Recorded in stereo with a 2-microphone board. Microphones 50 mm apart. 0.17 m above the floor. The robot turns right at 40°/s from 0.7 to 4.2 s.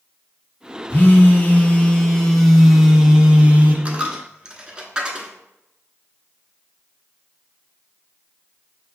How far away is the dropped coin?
About 0.7 m.